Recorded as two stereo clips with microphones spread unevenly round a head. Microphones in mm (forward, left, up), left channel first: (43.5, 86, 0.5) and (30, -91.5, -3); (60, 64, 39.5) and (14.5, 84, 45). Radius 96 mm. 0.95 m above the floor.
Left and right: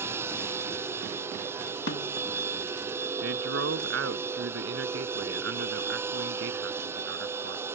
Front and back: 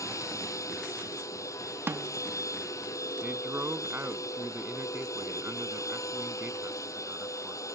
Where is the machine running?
20° right.